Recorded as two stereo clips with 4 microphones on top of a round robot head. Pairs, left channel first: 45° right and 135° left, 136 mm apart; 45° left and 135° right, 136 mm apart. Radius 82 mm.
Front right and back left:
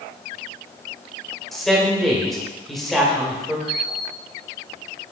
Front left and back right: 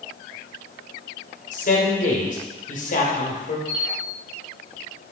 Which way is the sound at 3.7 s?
160° left.